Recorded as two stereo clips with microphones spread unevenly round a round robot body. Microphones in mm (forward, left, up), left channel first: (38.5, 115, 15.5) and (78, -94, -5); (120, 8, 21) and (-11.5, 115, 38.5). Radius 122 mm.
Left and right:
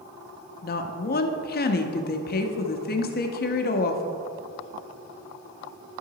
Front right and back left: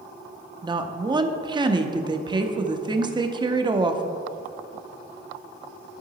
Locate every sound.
0.6 s a woman speaking: 80° left, 0.8 m